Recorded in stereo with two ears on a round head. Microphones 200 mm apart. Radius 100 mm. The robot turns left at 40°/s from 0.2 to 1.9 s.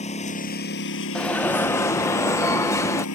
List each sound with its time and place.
0.0 s a lawn mower: 145° left; by 3.1 s 80° left
1.1 s an alarm: 5° left (ahead or behind); by 3.0 s 15° left (ahead or behind)